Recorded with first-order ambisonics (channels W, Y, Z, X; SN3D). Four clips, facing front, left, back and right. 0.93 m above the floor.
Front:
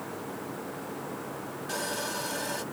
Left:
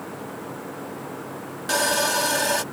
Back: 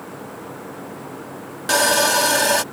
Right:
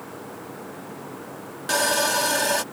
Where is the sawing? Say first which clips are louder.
Even, back 17 dB; straight behind.